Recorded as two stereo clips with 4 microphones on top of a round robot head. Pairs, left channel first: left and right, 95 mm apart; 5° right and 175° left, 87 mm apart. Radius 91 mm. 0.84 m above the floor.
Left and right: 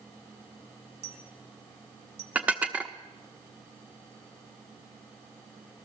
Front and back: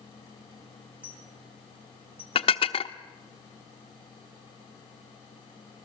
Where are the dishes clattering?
10° right, 1.0 m.